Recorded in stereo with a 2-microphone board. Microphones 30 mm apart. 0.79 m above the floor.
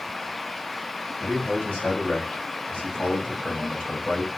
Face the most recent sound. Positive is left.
turn(degrees=30)  # may be behind; listen again after turning